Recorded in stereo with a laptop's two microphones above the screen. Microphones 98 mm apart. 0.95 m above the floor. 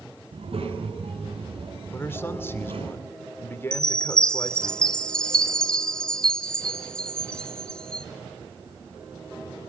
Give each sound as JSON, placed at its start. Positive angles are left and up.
{"t": 0.3, "sound": "a child speaking", "side_deg": -80, "distance_m": 6.0}
{"t": 1.9, "sound": "a man speaking", "side_deg": 25, "distance_m": 2.5}
{"t": 3.7, "sound": "a chime", "side_deg": 5, "distance_m": 1.2}